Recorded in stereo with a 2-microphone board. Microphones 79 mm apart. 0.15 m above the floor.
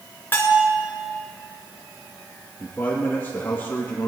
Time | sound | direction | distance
0.3 | a bell | 25° left (ahead or behind) | 2 m
2.6 | a man speaking | 20° left (ahead or behind) | 2.5 m